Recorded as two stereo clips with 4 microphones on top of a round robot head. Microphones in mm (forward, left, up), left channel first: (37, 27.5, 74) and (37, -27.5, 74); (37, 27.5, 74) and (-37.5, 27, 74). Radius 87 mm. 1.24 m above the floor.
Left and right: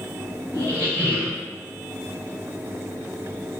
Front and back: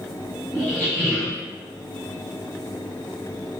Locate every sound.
0.5 s a squeak: 75° left, 1.5 m